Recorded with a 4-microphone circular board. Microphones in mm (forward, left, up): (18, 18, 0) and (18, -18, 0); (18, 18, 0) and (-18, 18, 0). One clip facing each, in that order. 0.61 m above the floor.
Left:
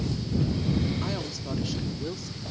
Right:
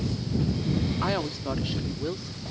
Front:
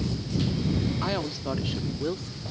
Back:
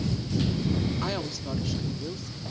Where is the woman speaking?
80° right; by 2.5 s 15° right.